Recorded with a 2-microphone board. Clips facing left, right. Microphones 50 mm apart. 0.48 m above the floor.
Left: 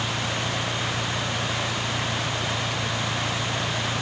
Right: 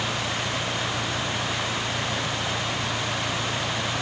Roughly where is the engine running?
Left.